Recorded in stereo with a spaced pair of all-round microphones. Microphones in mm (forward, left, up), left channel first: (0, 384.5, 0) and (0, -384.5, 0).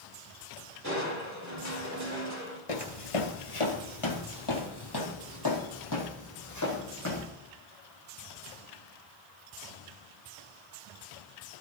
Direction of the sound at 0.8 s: 20° right (ahead or behind).